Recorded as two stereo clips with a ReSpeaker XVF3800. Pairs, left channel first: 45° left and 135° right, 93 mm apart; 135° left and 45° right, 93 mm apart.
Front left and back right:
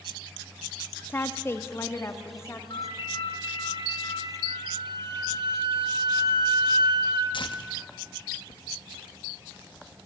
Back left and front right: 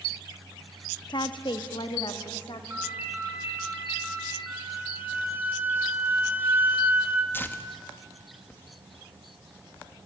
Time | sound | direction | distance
1.1 | a woman speaking | 110° left | 0.9 m
2.7 | a ringtone | 25° left | 5.5 m
4.5 | a flute | 115° right | 2 m
7.3 | tearing paper | 70° left | 1.5 m